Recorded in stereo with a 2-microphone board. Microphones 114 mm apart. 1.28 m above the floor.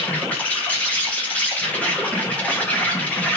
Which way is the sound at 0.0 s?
15° left (ahead or behind).